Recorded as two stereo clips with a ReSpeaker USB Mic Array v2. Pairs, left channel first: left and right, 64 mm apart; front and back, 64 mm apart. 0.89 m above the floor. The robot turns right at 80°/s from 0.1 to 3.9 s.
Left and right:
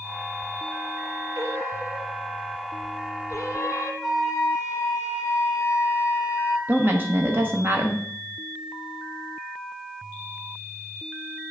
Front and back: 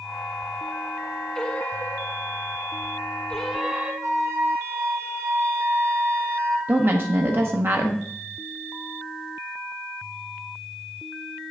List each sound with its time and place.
1.4 s singing: 75° right, 1.0 m; by 3.9 s 130° left, 1.0 m
4.0 s a flute: 175° right, 3 m
6.7 s a woman speaking: 140° right, 0.9 m